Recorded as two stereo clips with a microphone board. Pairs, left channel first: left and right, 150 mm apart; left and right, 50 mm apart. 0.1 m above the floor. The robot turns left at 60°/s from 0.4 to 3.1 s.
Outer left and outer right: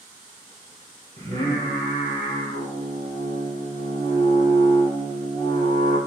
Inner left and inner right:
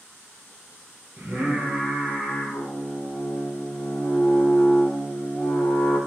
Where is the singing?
110° right, 1.7 m; by 6.0 s 135° left, 1.7 m.